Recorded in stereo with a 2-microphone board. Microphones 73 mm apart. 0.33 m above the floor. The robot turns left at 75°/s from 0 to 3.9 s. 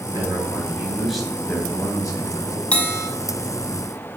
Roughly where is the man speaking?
Right.